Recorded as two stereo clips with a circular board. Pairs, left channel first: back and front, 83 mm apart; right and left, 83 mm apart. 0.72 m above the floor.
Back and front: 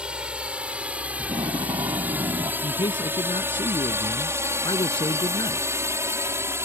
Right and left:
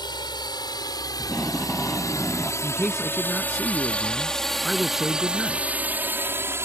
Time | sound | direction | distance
0.0 | a drone | 75° right | ?
1.2 | tape being pulled | 5° right | ?
2.6 | a man speaking | straight behind | ?